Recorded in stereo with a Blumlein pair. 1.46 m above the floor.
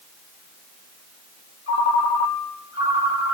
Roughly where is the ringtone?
Ahead left.